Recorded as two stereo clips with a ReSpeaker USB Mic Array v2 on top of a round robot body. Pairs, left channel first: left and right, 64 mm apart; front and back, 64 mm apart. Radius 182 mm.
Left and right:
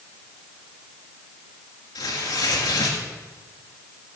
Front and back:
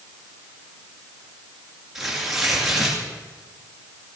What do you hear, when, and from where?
1.9 s tearing paper: 95° left, 2 m